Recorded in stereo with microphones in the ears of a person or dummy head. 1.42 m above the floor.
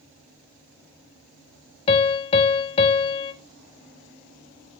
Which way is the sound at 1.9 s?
30° left (ahead or behind).